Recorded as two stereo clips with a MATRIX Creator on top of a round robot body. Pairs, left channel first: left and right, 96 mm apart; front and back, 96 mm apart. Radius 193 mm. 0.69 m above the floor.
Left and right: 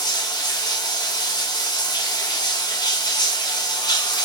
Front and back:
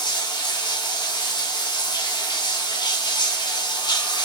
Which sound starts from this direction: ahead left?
Running water, at 0.0 s.